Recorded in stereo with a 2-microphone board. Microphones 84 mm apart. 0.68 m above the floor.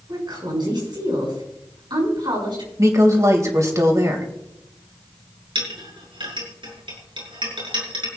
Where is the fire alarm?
No fire alarm in this recording.